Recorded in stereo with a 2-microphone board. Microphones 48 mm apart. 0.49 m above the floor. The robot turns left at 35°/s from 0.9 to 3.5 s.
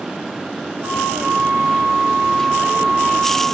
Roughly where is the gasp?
No gasp in this recording.